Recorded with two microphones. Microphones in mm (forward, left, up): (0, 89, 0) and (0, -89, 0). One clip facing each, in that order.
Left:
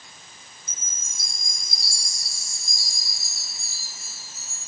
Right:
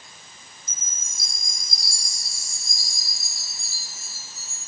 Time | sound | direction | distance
0.7 | a chime | 70° left (ahead or behind) | 3.5 m